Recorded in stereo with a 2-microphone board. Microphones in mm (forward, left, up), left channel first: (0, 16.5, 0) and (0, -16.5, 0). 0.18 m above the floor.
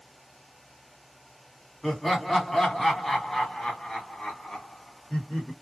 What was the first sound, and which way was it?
Laughter, 5° left (ahead or behind).